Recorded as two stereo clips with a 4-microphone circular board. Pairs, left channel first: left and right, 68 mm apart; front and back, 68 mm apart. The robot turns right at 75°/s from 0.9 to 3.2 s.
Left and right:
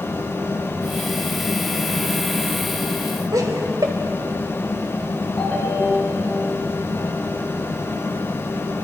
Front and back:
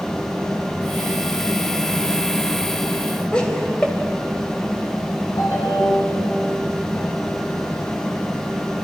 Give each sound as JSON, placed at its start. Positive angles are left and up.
{"t": 3.3, "sound": "laughter", "azimuth_deg": -75, "distance_m": 3.5}
{"t": 5.4, "sound": "a ringtone", "azimuth_deg": 20, "distance_m": 7.5}